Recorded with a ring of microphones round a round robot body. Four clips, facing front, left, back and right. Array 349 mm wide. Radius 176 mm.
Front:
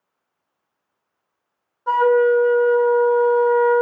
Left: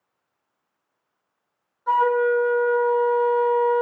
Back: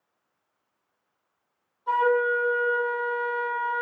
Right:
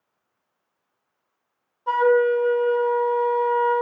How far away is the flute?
About 5 m.